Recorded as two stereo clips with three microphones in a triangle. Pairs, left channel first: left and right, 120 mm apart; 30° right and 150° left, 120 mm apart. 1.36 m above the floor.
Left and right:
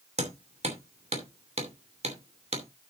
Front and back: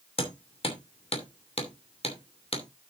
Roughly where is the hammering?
Ahead right.